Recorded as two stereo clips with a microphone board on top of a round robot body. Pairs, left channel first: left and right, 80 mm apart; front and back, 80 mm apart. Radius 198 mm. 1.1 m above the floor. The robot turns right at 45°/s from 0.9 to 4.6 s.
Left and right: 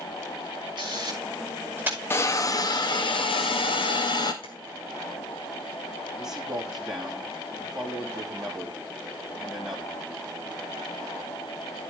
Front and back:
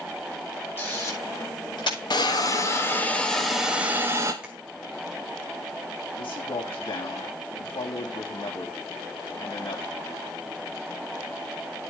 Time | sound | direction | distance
0.8 | a camera shutter | 65° right | 9 m
2.1 | a hiss | 25° left | 2 m
4.4 | tapping | 100° left | 2 m
6.2 | a man speaking | 5° right | 3.5 m